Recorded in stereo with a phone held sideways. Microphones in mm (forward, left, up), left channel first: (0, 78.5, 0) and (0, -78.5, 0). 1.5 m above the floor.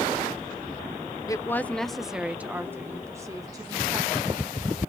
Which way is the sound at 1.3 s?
20° left (ahead or behind).